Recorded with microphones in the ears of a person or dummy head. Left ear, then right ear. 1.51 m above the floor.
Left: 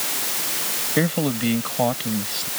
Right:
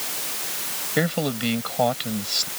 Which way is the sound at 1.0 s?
30° right (ahead or behind).